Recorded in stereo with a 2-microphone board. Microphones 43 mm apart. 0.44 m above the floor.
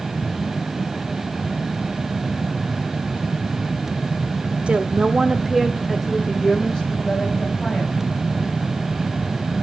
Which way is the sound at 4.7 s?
30° right (ahead or behind).